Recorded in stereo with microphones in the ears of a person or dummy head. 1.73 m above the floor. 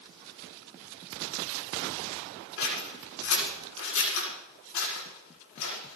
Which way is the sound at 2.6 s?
75° left (ahead or behind).